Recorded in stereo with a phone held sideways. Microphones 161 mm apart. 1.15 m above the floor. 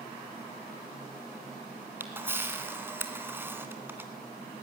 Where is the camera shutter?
15° right (ahead or behind), 2 m.